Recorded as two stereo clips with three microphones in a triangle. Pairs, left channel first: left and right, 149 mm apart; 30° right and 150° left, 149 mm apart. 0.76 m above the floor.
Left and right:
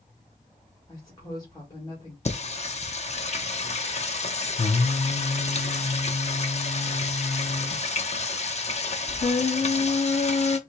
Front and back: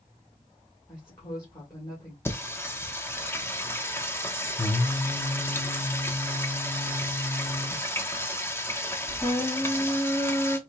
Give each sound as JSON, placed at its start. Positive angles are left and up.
{"t": 0.9, "sound": "a woman speaking", "azimuth_deg": 30, "distance_m": 1.7}
{"t": 2.2, "sound": "singing", "azimuth_deg": 45, "distance_m": 0.6}